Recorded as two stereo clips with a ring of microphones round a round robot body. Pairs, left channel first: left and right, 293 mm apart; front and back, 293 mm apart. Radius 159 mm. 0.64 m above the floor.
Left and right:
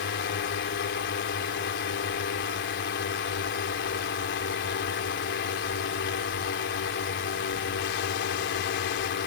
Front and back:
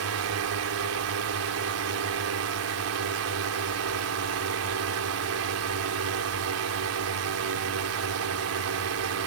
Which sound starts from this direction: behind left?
A drone, at 0.0 s.